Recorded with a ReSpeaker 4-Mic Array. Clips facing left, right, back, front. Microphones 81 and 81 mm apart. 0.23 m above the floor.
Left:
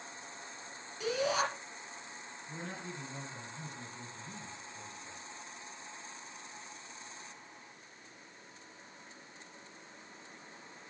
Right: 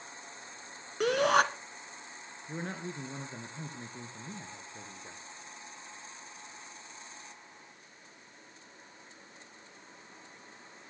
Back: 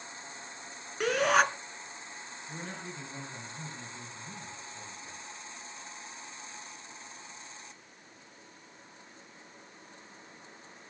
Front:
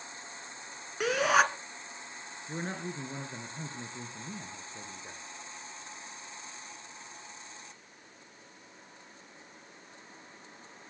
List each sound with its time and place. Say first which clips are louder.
1.0 s a shout: right 7 dB, even; 90° right, 2 m
2.5 s a man speaking: right 5 dB, front 6 dB; 50° right, 3 m